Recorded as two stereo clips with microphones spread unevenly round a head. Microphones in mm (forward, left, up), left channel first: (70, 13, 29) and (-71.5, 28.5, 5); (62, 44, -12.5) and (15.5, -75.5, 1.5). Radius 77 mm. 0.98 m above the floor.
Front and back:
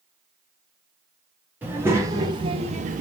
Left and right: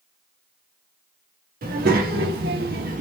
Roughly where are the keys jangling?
I don't hear keys jangling.